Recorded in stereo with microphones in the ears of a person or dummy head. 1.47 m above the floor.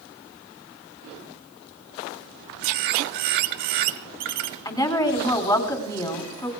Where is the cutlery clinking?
I don't hear cutlery clinking.